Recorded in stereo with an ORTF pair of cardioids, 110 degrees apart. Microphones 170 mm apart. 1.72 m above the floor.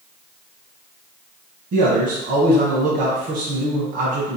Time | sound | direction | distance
1.7 | a man speaking | 50° right | 1.1 m